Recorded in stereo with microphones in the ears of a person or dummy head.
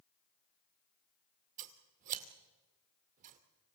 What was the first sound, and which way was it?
Scissors, 50° right (ahead or behind).